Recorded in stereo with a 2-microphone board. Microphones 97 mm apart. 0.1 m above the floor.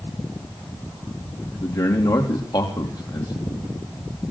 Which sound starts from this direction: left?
A man speaking, at 1.6 s.